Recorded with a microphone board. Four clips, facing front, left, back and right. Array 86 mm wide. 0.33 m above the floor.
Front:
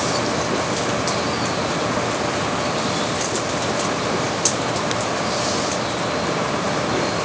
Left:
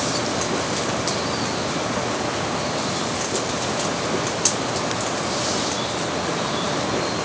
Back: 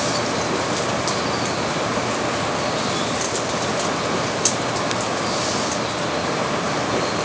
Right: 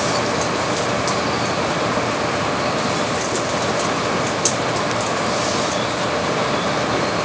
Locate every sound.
Only background noise.